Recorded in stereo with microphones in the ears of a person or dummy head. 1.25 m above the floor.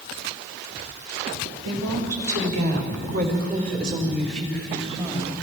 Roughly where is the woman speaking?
Right.